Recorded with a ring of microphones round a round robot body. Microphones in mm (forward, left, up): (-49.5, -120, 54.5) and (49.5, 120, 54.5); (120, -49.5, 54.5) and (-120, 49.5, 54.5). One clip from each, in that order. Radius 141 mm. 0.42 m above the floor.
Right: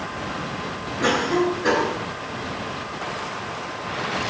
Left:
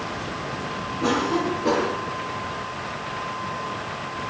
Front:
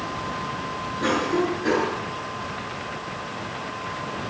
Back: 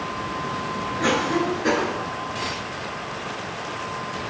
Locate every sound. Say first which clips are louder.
1.0 s a cough: right 3 dB, back 1 dB; 120° right, 6 m